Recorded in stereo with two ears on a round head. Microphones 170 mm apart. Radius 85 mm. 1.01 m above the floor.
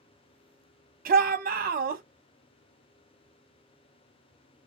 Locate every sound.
1.1 s a shout: 45° right (ahead or behind), 0.7 m